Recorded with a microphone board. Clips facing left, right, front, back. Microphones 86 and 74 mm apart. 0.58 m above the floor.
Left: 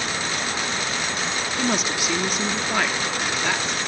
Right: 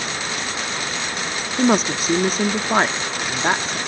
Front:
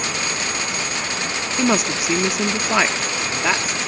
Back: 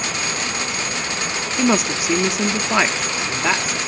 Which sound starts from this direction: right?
A woman speaking, at 1.6 s.